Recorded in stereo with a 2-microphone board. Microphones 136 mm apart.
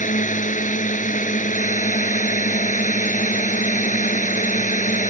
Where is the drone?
70° left (ahead or behind).